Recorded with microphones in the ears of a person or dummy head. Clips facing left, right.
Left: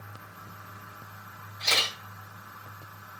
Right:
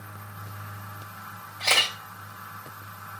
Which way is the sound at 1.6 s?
65° right (ahead or behind).